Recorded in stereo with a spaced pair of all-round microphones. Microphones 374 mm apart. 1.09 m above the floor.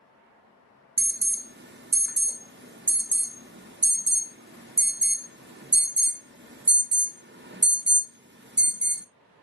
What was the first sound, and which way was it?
An alarm, 30° right (ahead or behind).